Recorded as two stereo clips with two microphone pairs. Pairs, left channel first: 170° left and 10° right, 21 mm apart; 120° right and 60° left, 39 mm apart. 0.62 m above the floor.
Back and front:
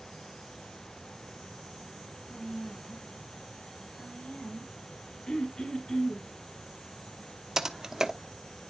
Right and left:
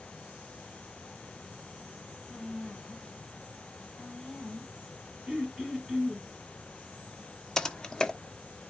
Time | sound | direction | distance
2.3 | a woman speaking | 155° left | 3.5 m
5.3 | throat clearing | 140° left | 3 m
7.6 | typing on a keyboard | 60° right | 1.0 m